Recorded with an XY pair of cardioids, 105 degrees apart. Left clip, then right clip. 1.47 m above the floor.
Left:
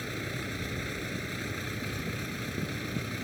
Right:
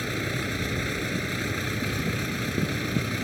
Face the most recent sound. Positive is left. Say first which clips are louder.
# right 7 dB
turn(degrees=-40)